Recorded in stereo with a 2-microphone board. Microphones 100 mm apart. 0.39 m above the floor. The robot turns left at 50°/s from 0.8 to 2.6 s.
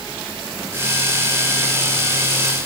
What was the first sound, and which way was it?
Only background noise.